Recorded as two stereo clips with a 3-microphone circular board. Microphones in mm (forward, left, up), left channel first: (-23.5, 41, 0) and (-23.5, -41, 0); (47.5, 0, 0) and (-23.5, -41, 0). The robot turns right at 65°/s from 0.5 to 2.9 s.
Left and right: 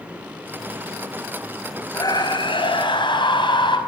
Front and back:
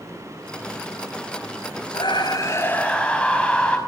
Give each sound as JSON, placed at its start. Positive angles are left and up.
{"t": 1.9, "sound": "a scream", "azimuth_deg": 45, "distance_m": 5.5}